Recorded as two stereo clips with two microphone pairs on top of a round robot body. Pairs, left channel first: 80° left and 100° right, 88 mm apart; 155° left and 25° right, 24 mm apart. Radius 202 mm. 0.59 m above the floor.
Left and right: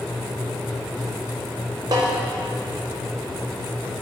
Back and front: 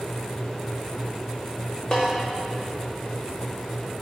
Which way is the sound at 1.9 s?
150° right.